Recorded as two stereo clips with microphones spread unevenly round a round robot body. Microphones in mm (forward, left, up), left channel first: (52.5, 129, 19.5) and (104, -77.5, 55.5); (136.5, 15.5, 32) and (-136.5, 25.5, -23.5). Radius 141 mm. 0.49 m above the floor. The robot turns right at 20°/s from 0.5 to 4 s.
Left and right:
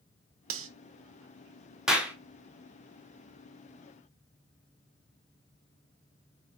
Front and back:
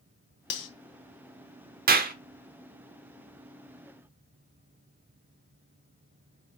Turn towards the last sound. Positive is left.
turn(degrees=-130)